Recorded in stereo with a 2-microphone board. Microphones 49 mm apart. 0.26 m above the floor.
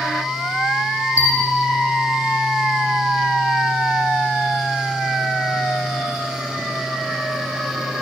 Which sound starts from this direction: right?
A bell, at 1.2 s.